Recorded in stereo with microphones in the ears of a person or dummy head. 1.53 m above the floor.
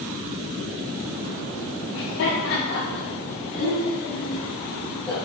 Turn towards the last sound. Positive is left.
turn(degrees=5)  # may be behind; listen again after turning